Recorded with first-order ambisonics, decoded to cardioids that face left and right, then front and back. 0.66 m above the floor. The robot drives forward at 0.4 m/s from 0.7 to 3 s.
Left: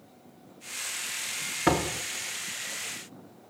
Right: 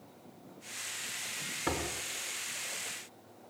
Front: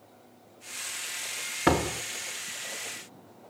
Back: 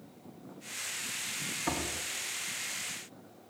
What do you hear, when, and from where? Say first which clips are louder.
1.7 s a door slam: left 10 dB, front 12 dB; 30° left, 1.1 m; by 2.0 s 35° left, 0.9 m